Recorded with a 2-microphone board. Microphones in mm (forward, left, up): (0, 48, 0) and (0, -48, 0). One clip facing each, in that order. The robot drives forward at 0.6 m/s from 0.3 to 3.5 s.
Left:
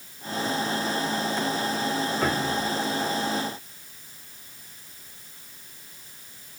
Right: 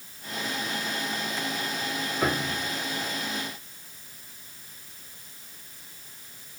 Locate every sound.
2.2 s a piano: 5° right (ahead or behind)